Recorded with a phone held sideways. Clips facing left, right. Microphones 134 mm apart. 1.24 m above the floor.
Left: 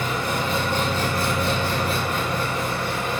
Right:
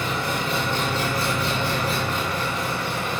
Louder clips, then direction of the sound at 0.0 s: Left 1 dB; 45° left (ahead or behind).